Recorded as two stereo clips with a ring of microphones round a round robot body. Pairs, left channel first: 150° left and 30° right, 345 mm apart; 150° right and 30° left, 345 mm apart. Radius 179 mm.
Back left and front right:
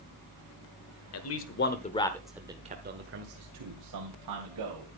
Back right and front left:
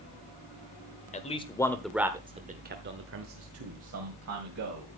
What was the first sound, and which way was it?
A man speaking, 150° left.